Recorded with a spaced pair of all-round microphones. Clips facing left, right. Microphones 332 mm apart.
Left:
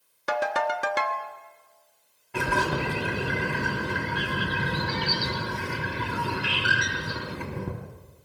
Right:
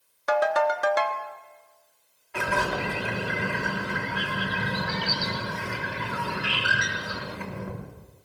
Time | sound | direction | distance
0.3 | a ringtone | 35° left (ahead or behind) | 1.3 m
2.3 | a bird | 45° left (ahead or behind) | 3.5 m